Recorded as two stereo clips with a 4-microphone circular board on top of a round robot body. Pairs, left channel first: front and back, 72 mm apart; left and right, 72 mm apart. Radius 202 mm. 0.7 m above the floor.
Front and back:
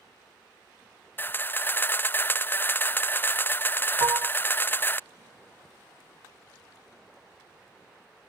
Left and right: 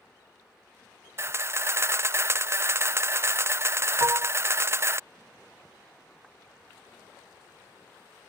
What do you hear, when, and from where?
1.2 s a camera shutter: 50° right
4.0 s dishes clattering: 140° right